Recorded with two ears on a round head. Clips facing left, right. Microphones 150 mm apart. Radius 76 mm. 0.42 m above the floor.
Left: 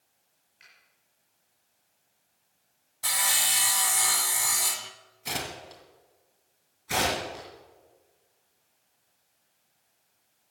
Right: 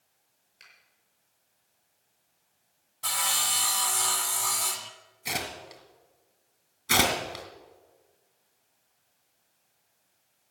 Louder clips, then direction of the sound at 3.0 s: Even; 10° left (ahead or behind).